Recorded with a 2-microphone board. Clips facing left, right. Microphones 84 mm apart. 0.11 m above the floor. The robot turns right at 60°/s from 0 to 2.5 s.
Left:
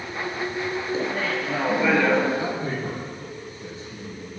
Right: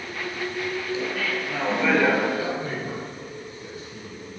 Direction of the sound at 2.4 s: 25° left (ahead or behind).